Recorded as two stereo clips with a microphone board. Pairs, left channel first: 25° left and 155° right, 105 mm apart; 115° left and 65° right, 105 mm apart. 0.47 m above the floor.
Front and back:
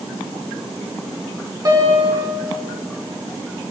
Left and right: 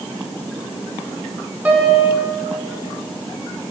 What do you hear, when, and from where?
1.6 s a piano: 135° right, 1.7 m